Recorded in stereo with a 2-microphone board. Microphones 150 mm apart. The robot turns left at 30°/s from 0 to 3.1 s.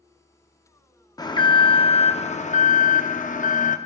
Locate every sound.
1.2 s an alarm: 150° left, 0.5 m; by 3.8 s 95° left, 0.5 m